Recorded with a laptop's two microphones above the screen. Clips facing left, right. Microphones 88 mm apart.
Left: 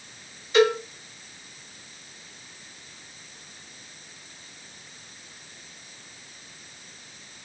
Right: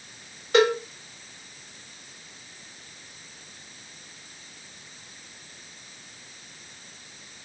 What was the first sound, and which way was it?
A cowbell, 60° right (ahead or behind).